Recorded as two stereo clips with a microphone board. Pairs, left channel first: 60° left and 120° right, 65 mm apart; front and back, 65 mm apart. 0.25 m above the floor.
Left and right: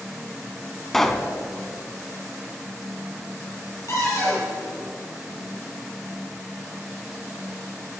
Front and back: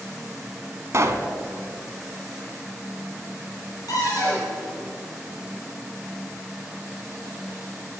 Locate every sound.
0.9 s a pop: 145° left, 0.6 m
3.9 s a cupboard door: 20° left, 3.5 m